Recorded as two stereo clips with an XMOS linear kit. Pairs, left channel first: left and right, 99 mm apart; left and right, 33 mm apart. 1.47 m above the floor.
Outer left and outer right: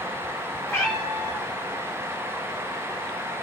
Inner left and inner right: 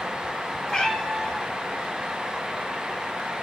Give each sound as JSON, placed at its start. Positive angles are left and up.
{"t": 0.7, "sound": "a cat meowing", "side_deg": 30, "distance_m": 1.4}